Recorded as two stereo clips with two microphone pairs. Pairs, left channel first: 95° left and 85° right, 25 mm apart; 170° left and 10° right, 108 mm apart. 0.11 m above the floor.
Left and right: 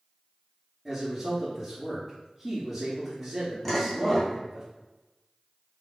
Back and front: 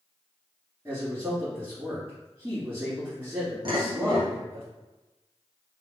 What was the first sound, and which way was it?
A man speaking, 20° right.